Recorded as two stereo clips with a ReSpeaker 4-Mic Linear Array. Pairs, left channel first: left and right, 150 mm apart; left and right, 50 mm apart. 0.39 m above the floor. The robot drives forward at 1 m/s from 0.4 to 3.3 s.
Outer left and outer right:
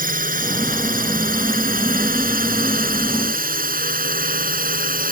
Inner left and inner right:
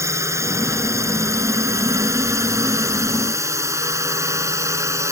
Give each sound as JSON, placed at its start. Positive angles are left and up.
{"t": 0.0, "sound": "a drone", "side_deg": -70}